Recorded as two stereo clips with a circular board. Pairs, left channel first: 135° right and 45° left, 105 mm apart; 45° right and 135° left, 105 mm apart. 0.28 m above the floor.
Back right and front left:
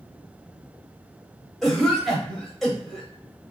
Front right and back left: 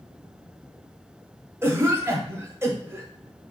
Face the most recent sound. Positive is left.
turn(degrees=140)